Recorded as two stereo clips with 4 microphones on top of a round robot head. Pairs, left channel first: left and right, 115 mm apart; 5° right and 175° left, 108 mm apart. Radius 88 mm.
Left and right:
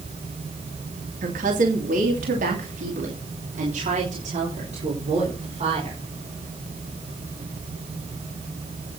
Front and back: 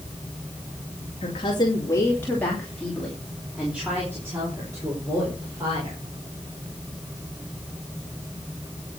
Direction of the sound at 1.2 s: 60° right.